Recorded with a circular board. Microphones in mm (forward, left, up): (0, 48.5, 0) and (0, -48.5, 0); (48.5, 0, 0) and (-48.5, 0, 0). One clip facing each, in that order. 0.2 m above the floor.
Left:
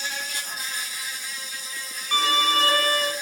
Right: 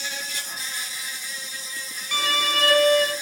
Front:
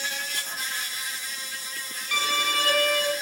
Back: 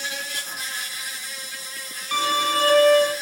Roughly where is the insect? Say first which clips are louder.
Left 1 dB, back 1 dB; left.